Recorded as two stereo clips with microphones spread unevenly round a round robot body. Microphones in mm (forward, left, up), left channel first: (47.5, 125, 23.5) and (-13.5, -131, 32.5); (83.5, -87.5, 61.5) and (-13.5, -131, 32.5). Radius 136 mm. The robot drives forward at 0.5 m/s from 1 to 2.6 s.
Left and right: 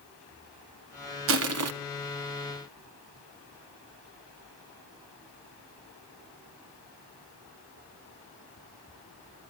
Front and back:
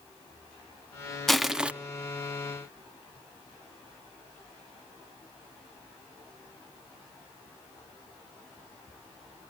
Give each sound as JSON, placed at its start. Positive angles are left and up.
{"t": 1.3, "sound": "crushing", "azimuth_deg": -65, "distance_m": 1.0}